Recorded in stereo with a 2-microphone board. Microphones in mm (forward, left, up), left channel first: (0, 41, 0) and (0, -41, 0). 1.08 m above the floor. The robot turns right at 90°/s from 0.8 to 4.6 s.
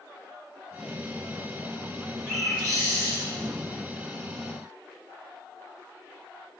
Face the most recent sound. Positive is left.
turn(degrees=45)